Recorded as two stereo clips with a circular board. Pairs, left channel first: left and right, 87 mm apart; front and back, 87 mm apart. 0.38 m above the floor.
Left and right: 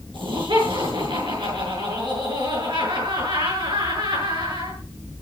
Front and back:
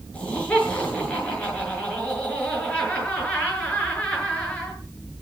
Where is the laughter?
75° right, 7 m.